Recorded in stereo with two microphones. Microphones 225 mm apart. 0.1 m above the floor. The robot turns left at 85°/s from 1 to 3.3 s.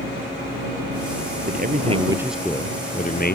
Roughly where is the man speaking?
Right.